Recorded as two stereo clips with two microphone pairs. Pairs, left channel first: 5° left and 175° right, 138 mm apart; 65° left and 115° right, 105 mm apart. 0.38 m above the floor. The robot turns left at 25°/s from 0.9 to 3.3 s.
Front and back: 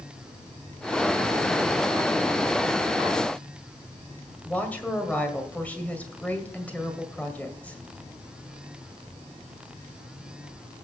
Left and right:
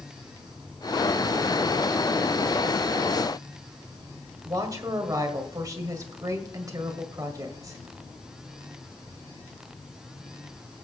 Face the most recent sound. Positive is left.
turn(degrees=-70)